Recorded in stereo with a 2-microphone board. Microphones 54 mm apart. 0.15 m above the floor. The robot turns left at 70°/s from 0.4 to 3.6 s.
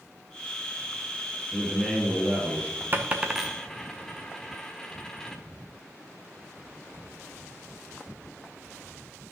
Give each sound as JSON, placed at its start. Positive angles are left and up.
{"t": 1.5, "sound": "a man speaking", "azimuth_deg": 10, "distance_m": 3.0}
{"t": 2.9, "sound": "a dropped coin", "side_deg": -40, "distance_m": 1.0}